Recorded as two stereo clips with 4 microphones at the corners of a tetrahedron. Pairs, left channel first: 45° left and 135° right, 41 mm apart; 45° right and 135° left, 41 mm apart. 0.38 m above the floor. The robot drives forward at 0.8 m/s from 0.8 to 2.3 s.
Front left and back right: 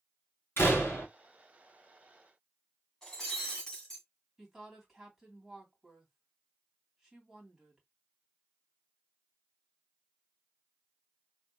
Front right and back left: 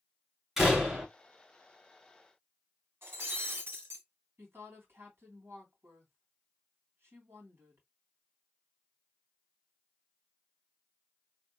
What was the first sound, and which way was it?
A door slam, 55° left.